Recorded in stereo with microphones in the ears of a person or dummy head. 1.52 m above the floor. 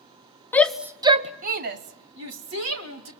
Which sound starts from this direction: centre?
A shout, at 0.5 s.